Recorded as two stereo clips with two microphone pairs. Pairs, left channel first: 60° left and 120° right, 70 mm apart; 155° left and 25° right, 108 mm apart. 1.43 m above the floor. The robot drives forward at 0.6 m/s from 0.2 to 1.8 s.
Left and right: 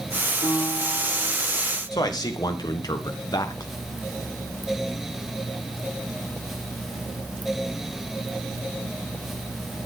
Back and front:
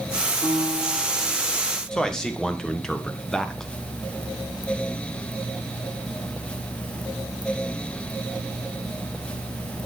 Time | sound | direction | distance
0.4 | a piano | 25° left | 3 m
1.9 | a man speaking | 70° left | 1.1 m